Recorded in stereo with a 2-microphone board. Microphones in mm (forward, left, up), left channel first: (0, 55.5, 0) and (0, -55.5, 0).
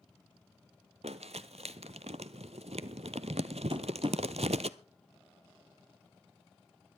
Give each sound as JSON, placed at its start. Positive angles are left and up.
{"t": 1.0, "sound": "crumpling", "side_deg": -75, "distance_m": 0.6}
{"t": 3.7, "sound": "tapping", "side_deg": -50, "distance_m": 1.0}